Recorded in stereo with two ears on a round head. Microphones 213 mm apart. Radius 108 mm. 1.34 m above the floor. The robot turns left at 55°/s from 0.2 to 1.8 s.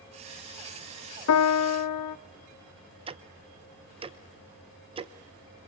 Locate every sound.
1.3 s a piano: 70° left (ahead or behind), 0.6 m; by 2.2 s 80° left, 0.6 m
3.1 s ticking: 25° right (ahead or behind), 1.0 m